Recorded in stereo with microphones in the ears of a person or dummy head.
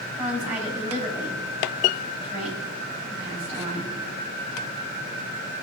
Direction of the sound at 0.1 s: 5° right (ahead or behind).